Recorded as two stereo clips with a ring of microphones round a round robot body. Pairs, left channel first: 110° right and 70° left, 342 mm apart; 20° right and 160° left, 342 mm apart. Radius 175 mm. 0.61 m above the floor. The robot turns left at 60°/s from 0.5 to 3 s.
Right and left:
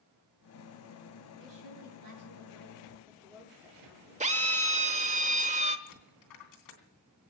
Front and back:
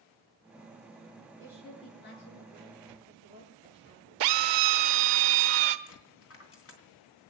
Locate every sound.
1.4 s a woman speaking: 80° left, 8.5 m; by 4.2 s 20° right, 8.5 m
4.2 s a drill: 140° left, 1.0 m
5.9 s a dropped coin: 75° right, 3 m